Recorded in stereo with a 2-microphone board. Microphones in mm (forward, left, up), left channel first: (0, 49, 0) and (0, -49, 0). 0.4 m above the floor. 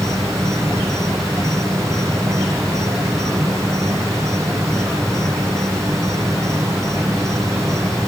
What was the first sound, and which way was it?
An insect, 30° right (ahead or behind).